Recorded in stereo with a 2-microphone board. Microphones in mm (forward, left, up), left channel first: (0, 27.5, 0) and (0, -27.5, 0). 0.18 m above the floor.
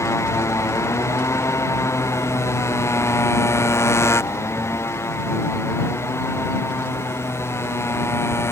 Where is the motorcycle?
75° left (ahead or behind); by 8.5 s 60° left (ahead or behind).